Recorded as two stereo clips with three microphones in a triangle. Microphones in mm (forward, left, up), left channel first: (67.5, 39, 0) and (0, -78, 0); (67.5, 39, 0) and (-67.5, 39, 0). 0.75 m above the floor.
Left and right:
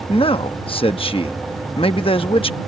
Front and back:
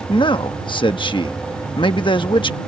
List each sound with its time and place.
0.1 s a man speaking: 35° left